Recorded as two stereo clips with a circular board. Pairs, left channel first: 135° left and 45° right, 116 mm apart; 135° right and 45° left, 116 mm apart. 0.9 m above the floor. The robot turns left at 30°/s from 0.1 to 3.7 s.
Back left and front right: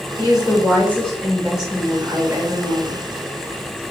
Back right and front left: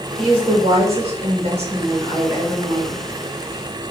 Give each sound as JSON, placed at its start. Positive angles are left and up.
{"t": 0.2, "sound": "a woman speaking", "azimuth_deg": 80, "distance_m": 1.8}